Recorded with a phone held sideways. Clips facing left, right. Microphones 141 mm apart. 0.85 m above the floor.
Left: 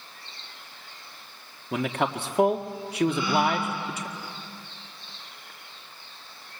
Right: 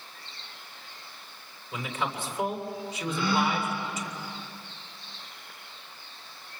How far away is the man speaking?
About 1.7 m.